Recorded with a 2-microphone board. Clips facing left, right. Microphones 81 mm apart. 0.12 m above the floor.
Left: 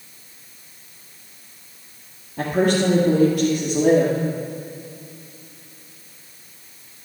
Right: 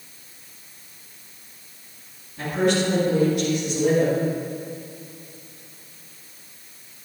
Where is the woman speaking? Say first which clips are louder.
Left 3 dB; 60° left (ahead or behind), 2.5 m.